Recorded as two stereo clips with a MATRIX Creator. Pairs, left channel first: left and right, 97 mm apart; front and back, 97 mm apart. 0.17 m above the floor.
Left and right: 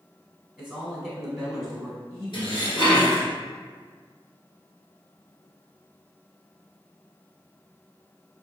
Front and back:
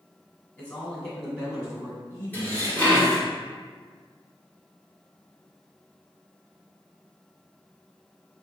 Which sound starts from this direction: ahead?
A man speaking, at 0.6 s.